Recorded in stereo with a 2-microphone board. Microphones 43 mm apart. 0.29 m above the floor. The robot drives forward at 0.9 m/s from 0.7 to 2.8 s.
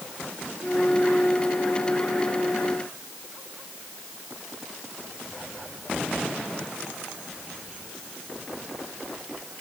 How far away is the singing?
I don't hear singing.